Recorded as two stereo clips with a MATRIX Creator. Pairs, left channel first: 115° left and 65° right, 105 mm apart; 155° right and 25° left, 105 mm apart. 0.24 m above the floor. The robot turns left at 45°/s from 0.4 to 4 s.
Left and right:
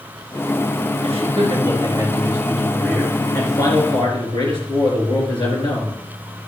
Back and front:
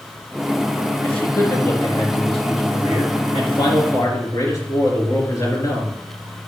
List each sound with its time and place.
1.0 s a man speaking: 80° right, 4.5 m; by 6.4 s 150° left, 4.5 m